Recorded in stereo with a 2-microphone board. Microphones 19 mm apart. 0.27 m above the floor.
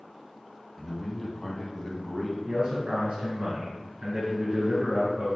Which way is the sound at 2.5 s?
60° right (ahead or behind).